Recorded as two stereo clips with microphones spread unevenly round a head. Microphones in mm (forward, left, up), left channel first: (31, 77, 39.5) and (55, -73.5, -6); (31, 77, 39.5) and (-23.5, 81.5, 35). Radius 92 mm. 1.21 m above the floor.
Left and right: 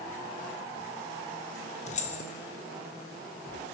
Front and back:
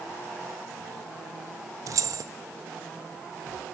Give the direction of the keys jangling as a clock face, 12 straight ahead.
7 o'clock.